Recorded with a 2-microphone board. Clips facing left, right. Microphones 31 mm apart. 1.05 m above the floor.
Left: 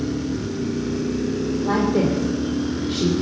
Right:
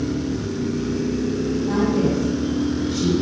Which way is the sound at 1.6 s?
85° left.